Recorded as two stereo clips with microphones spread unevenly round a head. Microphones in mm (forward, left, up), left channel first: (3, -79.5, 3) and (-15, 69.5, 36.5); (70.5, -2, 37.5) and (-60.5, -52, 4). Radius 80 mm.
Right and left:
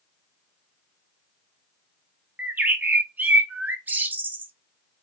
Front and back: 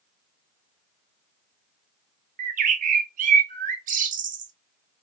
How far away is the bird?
About 0.6 m.